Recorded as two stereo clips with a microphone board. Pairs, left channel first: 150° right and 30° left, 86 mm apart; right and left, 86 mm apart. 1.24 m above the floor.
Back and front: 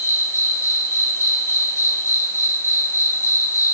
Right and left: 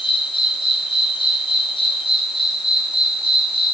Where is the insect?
95° right, 1.2 m.